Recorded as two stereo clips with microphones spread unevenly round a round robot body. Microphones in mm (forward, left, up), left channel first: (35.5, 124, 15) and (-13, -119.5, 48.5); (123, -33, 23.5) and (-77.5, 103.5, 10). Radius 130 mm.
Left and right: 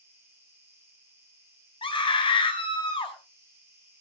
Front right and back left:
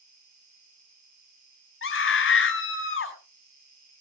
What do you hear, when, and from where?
0.0 s an insect: 175° left, 6.5 m
1.8 s a scream: 5° left, 4 m